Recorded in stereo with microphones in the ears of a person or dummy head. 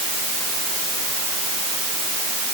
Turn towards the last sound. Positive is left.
No sound to turn to.